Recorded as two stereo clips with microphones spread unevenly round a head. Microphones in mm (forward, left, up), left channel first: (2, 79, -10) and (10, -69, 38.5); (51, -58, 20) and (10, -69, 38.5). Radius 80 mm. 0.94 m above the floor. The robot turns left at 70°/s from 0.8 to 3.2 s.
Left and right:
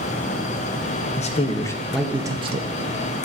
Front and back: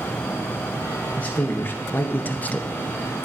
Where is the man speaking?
65° left, 0.7 m; by 2.6 s 35° right, 0.7 m.